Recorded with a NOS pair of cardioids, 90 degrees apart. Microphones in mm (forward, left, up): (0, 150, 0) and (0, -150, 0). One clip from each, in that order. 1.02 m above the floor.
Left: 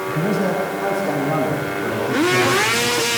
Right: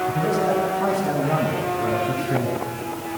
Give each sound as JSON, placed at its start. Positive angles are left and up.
{"t": 0.1, "sound": "a man speaking", "azimuth_deg": -35, "distance_m": 9.0}